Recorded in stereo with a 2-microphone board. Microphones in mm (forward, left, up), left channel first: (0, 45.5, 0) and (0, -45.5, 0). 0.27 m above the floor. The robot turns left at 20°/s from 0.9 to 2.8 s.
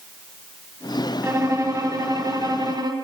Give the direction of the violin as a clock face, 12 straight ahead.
1 o'clock.